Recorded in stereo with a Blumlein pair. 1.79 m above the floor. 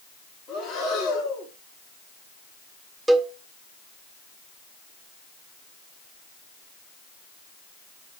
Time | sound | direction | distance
0.5 | breathing | 35° left | 4 m
3.1 | a cowbell | 10° right | 0.8 m